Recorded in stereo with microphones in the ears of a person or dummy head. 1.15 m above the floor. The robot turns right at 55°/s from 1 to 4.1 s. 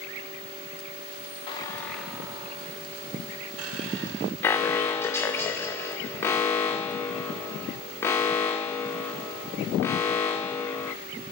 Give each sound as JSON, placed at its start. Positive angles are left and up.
{"t": 1.5, "sound": "a squeak", "azimuth_deg": 150, "distance_m": 0.5}
{"t": 4.4, "sound": "an alarm", "side_deg": 15, "distance_m": 0.7}